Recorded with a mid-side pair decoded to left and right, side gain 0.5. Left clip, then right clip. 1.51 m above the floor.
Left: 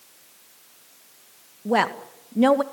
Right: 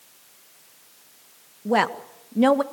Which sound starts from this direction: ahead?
A woman speaking, at 1.6 s.